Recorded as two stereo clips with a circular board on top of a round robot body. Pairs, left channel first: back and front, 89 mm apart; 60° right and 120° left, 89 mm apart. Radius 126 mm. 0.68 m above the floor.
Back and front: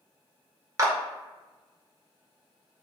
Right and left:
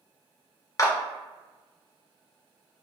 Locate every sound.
0.8 s a clap: 30° right, 1.0 m